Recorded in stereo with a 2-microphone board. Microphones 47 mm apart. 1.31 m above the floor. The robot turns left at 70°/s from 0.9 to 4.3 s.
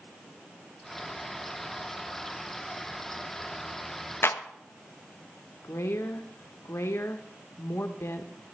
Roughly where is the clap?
Left.